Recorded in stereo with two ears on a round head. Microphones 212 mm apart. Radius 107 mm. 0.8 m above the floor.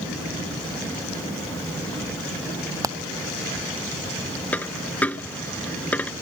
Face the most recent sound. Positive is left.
turn(degrees=5)  # may be behind; listen again after turning